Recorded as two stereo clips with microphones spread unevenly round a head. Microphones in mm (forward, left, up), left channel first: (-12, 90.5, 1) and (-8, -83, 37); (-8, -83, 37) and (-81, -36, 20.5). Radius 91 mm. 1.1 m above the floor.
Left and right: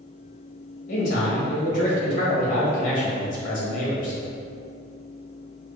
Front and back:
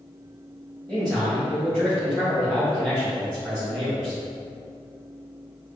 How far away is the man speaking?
About 1.5 m.